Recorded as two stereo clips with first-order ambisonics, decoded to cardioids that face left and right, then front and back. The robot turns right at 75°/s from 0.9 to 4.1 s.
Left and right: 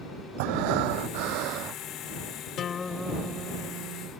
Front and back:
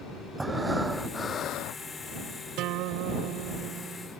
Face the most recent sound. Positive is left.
turn(degrees=-105)